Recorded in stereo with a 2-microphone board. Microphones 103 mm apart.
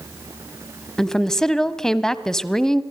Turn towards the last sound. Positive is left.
turn(degrees=5)  # may be behind; listen again after turning